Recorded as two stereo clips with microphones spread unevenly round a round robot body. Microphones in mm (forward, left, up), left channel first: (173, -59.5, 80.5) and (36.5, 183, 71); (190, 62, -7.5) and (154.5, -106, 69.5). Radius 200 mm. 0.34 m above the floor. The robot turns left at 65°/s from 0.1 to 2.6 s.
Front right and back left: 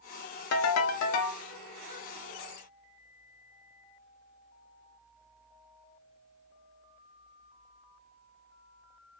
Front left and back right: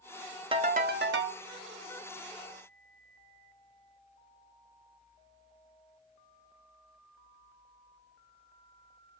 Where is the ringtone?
25° right, 0.6 m; by 1.4 s 80° right, 0.6 m.